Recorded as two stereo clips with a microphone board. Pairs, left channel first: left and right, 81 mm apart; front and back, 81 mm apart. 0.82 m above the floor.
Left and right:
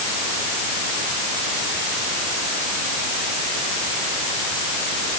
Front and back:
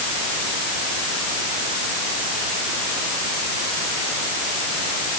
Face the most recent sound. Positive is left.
No sound to turn to.